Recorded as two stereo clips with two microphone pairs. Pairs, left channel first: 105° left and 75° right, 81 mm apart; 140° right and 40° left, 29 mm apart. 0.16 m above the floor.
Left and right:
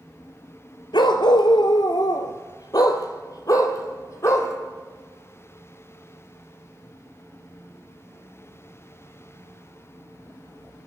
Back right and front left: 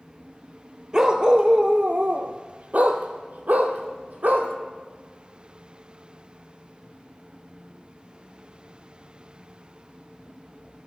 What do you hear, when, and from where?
0.9 s a dog barking: 105° left, 1.3 m; by 4.5 s 55° left, 2.5 m